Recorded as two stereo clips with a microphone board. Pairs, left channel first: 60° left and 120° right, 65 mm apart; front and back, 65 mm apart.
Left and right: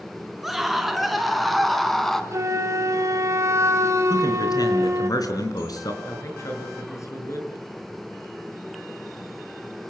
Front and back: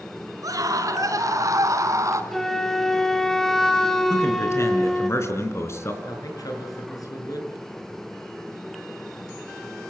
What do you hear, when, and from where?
0.4 s a scream: 150° left, 4 m; by 2.2 s 145° left, 3 m
2.3 s a flute: 85° right, 1.7 m
4.1 s a man speaking: 45° left, 4 m
6.0 s a man speaking: 20° left, 6.5 m